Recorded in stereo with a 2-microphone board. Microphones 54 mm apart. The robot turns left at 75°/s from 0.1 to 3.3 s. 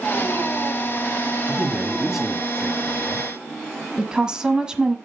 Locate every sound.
1.5 s a man speaking: 20° right (ahead or behind), 1.6 m; by 3.3 s 20° left (ahead or behind), 1.6 m
4.0 s a woman speaking: 15° right (ahead or behind), 1.1 m